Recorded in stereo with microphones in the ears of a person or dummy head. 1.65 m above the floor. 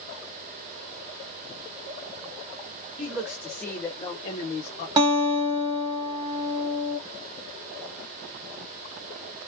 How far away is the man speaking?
About 1.1 m.